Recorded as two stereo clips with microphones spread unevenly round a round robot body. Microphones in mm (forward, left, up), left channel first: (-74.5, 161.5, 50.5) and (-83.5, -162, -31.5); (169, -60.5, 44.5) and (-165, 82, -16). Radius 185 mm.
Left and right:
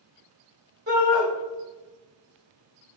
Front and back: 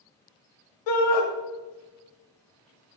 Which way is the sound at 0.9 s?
40° right.